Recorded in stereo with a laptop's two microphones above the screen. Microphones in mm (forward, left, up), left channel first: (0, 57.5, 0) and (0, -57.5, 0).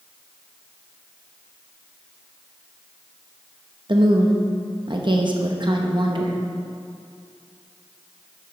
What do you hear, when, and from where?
3.9 s a woman speaking: 45° right (ahead or behind), 0.9 m